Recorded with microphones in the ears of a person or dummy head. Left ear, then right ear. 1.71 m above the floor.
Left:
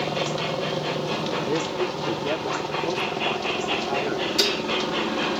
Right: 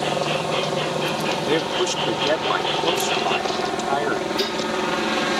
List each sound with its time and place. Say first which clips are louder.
0.0 s a helicopter: right 3 dB; 60° right (ahead or behind)
1.5 s a man speaking: right 4 dB; 75° right (ahead or behind)
4.4 s dishes clattering: left 1 dB; 15° left (ahead or behind)